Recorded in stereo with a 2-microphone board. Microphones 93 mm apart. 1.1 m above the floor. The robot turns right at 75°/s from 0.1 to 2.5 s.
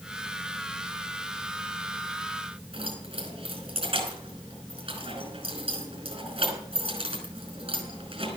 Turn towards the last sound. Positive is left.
turn(degrees=-90)